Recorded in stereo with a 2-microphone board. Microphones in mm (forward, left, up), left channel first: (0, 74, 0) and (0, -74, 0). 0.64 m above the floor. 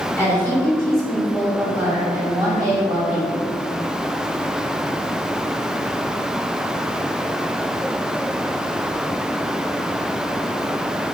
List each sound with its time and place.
0.2 s a woman speaking: 15° left (ahead or behind), 1.8 m; by 3.4 s 40° right (ahead or behind), 1.9 m